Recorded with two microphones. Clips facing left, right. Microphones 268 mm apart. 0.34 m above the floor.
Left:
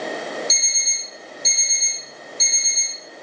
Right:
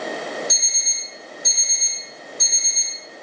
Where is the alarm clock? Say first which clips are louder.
Even; 25° left (ahead or behind), 0.6 m.